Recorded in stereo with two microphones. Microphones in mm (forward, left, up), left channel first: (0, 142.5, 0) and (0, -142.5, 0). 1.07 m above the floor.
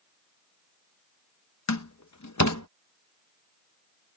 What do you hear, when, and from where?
1.7 s a door slam: 75° left (ahead or behind)